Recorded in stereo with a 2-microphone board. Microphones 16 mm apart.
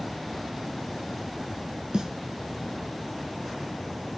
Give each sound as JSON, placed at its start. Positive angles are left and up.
{"t": 1.9, "sound": "a snare drum", "side_deg": -55, "distance_m": 1.4}